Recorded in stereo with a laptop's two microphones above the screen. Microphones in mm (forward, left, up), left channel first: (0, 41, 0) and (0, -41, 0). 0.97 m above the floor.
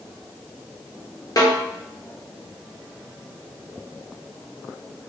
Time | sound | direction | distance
1.4 | a snare drum | 45° left (ahead or behind) | 0.7 m